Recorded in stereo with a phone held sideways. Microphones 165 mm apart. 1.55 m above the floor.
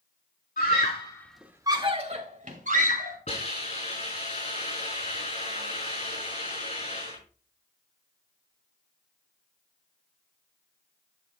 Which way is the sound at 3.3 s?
40° left (ahead or behind).